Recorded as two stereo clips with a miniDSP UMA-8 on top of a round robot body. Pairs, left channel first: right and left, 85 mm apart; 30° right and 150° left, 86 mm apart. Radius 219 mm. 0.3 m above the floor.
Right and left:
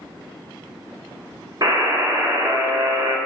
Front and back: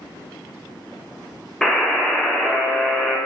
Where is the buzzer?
55° left, 1.1 m.